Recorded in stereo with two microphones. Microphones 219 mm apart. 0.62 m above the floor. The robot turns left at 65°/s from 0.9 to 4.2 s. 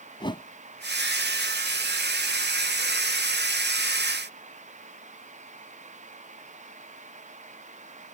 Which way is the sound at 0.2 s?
20° left (ahead or behind).